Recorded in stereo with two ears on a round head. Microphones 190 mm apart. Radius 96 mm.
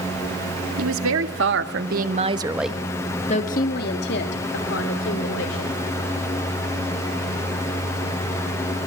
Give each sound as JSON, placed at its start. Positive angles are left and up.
{"t": 0.8, "sound": "a woman speaking", "side_deg": -70, "distance_m": 2.5}